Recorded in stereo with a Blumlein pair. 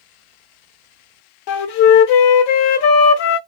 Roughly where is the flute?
Ahead left.